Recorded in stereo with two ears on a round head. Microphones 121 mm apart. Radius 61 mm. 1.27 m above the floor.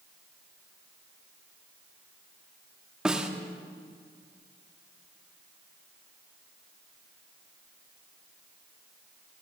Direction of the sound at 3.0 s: 5° right (ahead or behind).